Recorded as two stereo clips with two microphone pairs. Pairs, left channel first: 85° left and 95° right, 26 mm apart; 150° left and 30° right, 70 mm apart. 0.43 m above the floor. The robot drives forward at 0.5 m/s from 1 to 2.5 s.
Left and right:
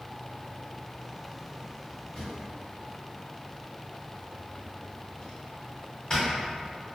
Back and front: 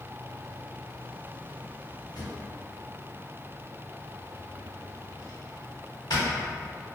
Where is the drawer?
145° left, 1.1 m; by 6.3 s 150° left, 1.2 m.